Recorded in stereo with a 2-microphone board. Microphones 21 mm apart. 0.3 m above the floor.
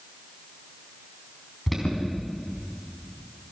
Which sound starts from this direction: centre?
An alarm, at 1.7 s.